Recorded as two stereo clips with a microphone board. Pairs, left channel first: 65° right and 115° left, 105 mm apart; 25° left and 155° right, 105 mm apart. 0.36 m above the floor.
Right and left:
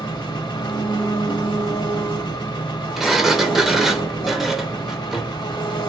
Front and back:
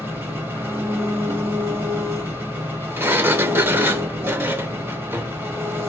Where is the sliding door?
160° right, 0.6 m.